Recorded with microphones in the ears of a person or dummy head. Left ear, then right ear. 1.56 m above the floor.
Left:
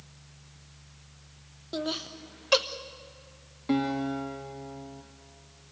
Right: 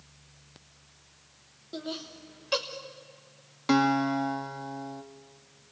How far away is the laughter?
About 1.3 m.